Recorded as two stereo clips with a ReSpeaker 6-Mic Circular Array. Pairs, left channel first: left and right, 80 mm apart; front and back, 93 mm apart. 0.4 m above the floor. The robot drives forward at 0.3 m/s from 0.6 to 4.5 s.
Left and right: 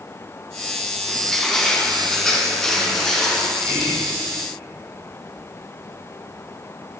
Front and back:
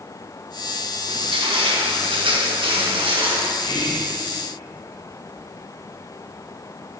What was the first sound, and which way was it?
Crushing, 175° left.